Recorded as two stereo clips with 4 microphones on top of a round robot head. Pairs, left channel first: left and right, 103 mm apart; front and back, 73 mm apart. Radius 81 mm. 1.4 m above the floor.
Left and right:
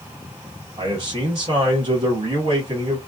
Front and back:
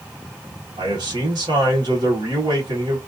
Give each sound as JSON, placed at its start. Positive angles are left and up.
{"t": 0.8, "sound": "a man speaking", "azimuth_deg": -140, "distance_m": 1.2}